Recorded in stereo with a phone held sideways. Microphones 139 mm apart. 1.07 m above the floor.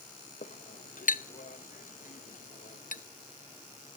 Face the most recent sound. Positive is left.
turn(degrees=65)  # may be behind; listen again after turning